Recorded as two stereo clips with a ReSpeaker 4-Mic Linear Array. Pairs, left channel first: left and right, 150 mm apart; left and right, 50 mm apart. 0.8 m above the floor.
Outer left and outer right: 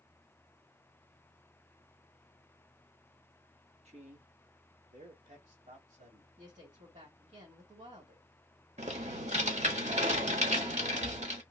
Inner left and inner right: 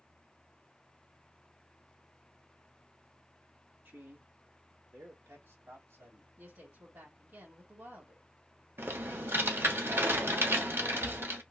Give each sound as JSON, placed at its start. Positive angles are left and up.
{"t": 3.9, "sound": "a man speaking", "side_deg": -45, "distance_m": 1.1}
{"t": 6.4, "sound": "a woman speaking", "side_deg": -55, "distance_m": 2.5}
{"t": 8.8, "sound": "typing on a keyboard", "side_deg": -50, "distance_m": 1.2}